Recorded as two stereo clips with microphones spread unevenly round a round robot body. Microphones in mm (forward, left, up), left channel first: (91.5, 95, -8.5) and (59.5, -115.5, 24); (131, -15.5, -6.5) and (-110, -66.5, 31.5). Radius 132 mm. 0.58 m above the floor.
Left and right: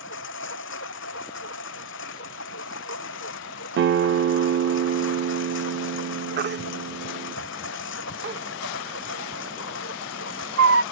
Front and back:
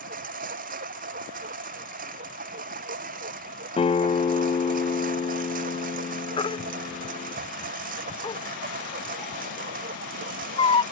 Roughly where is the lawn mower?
Behind left.